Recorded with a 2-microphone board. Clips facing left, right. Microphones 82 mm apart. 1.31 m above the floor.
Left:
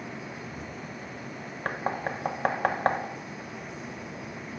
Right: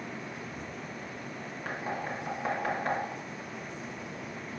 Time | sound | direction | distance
1.6 | knocking | 75° left (ahead or behind) | 0.7 m